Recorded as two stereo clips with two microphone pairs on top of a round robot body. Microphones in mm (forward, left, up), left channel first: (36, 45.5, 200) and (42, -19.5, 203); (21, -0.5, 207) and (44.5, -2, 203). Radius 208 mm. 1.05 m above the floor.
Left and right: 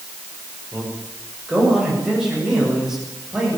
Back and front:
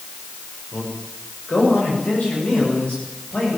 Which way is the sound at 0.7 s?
165° right.